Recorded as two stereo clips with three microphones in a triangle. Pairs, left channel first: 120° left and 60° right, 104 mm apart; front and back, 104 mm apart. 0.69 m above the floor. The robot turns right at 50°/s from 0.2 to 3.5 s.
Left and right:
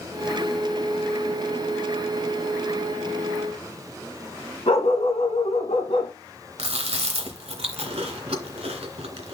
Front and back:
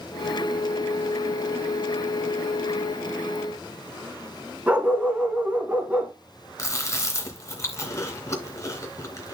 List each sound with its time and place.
4.7 s a dog barking: 105° left, 1.9 m
6.6 s chewing: 60° right, 2.5 m